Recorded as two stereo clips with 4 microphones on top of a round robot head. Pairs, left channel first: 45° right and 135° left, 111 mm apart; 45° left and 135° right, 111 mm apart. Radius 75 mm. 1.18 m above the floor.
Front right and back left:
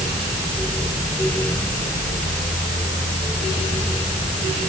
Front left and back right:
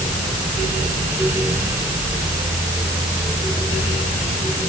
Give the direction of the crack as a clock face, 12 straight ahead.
I don't hear a crack.